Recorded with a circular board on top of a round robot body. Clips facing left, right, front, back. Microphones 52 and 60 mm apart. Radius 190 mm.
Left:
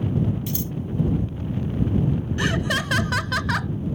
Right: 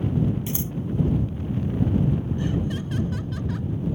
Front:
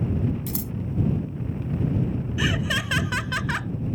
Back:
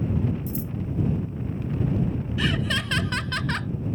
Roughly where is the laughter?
Left.